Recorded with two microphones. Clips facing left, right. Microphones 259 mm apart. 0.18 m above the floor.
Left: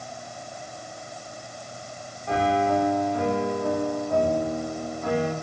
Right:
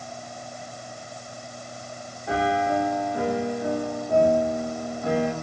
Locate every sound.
2.3 s a piano: 15° right (ahead or behind), 8.5 m